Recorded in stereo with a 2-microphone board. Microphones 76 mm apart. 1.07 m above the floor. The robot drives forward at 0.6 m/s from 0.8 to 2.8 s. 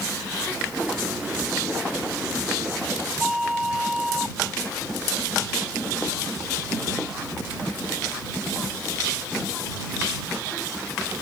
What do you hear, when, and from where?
3.2 s a flute: 5° right (ahead or behind)